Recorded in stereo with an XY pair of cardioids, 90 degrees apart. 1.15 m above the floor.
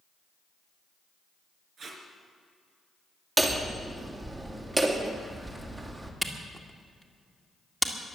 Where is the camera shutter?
10° right, 2.0 m.